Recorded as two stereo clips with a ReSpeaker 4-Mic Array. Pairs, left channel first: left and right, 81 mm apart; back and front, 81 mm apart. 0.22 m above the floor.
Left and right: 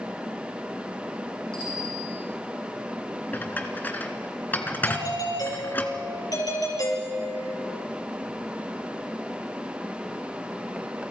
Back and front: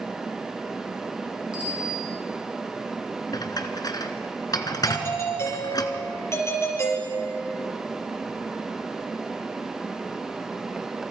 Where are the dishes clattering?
155° left, 1.9 m.